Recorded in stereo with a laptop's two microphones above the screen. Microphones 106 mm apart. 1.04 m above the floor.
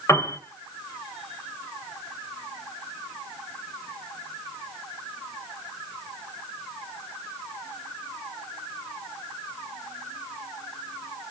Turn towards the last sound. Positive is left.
turn(degrees=30)  # may be behind; listen again after turning